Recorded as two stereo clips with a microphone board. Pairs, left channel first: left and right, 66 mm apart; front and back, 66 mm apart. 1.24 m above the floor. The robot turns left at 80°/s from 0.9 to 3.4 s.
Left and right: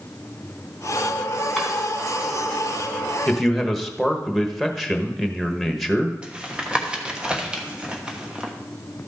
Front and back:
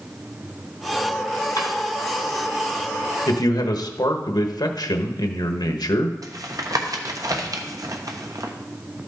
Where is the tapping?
165° right, 1.1 m.